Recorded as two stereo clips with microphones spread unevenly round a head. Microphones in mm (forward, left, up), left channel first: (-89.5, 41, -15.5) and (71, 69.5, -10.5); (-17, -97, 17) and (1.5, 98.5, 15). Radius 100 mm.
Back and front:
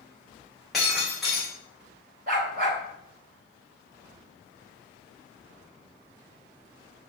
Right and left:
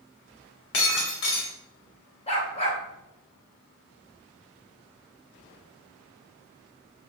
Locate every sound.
0.7 s breaking glass: 80° right, 4 m
2.3 s a dog barking: 35° right, 2.5 m